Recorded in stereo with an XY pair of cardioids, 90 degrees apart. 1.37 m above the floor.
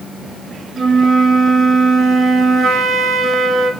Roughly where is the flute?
Right.